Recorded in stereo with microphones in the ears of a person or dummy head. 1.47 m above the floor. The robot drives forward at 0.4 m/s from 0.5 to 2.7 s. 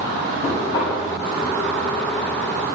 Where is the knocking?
25° left (ahead or behind), 5.5 m.